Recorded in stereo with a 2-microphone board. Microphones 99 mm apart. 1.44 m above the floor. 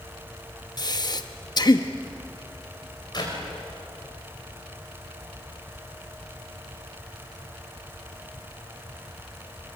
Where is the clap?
45° left (ahead or behind), 5 m.